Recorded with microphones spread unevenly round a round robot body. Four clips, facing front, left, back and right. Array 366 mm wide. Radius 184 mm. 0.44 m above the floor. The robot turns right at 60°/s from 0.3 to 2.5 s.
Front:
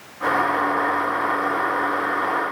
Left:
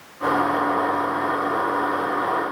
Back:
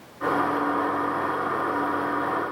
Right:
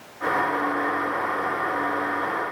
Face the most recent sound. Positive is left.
No sound to turn to.